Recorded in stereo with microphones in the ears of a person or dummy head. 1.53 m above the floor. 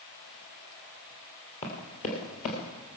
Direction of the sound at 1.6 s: 35° left (ahead or behind).